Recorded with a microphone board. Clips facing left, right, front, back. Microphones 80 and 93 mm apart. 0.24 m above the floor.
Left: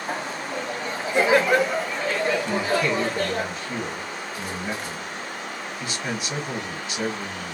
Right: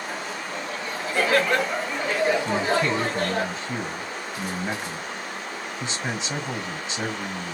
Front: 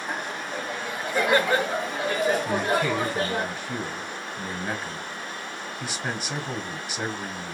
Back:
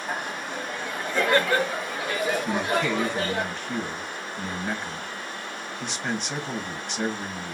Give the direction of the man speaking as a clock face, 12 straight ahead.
2 o'clock.